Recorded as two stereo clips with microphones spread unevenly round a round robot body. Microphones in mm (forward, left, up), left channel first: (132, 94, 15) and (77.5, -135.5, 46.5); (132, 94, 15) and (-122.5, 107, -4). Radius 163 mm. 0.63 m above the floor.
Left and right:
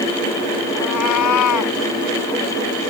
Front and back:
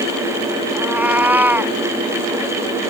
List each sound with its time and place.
0.8 s a cat meowing: 95° left